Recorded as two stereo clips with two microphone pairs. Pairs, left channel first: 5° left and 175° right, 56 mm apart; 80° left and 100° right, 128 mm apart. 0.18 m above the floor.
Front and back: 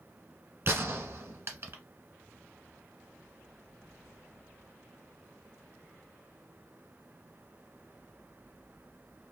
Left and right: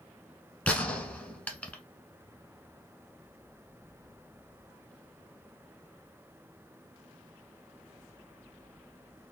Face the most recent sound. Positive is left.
turn(degrees=160)